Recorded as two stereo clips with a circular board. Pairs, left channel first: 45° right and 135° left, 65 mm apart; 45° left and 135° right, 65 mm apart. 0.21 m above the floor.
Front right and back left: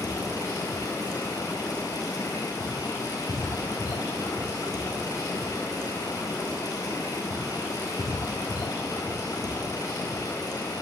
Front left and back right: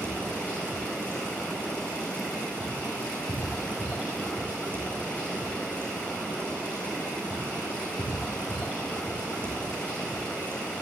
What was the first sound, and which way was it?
Running water, 25° right.